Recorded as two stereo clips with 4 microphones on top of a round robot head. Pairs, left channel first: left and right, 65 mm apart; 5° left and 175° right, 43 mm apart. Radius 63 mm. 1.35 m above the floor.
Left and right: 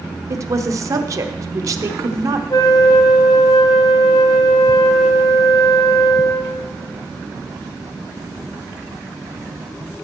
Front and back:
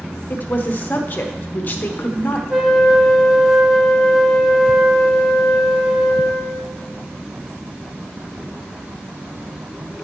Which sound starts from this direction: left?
A flute, at 2.5 s.